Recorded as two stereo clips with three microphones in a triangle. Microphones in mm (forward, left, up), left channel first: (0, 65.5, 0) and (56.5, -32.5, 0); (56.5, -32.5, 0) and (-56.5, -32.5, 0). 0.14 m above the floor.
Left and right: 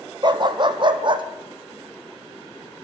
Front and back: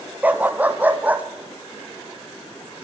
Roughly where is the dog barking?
Right.